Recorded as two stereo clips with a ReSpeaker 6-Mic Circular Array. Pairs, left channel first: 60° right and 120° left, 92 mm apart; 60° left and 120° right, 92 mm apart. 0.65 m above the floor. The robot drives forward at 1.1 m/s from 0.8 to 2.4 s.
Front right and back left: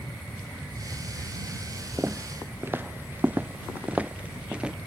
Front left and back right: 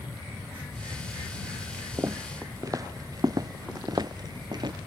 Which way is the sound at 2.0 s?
175° right.